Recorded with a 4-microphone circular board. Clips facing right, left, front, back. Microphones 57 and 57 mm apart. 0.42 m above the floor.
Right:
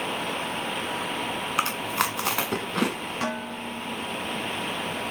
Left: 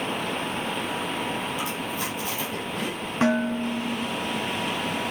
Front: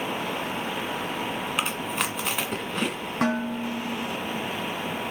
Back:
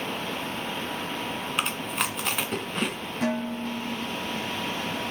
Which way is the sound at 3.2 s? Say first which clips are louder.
Left 11 dB, front 2 dB; 25° left.